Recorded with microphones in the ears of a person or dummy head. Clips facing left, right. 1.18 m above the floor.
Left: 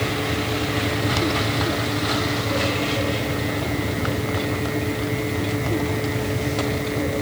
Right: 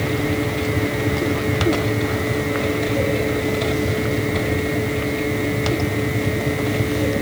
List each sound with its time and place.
Only background noise.